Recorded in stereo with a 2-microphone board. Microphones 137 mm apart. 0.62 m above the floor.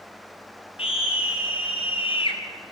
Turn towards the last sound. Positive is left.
turn(degrees=40)  # may be behind; listen again after turning